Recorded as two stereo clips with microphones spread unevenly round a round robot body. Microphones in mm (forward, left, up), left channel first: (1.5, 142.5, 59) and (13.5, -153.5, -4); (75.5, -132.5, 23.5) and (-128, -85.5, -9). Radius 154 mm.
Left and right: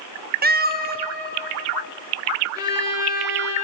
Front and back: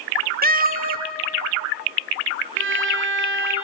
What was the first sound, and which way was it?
A cat meowing, 145° right.